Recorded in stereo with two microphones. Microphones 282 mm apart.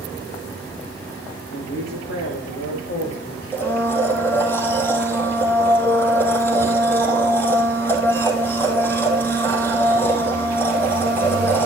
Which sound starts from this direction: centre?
A blender, at 3.5 s.